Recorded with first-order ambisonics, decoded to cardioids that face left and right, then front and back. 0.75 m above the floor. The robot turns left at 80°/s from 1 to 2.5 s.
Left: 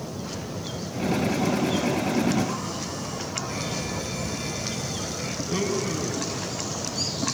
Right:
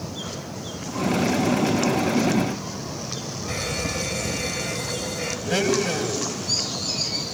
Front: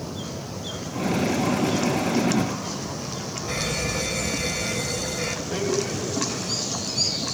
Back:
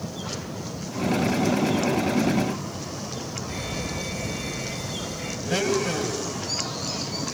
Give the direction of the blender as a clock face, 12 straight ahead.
4 o'clock.